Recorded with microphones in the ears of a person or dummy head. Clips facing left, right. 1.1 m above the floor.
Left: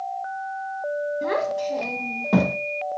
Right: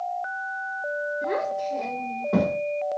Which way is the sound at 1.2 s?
80° left.